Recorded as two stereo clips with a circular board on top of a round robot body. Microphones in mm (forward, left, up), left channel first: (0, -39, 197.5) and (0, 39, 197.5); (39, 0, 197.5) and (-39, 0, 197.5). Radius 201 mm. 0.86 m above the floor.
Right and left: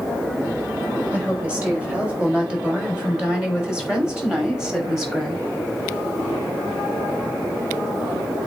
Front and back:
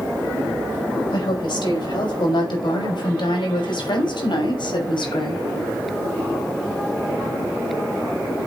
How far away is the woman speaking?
About 4.5 m.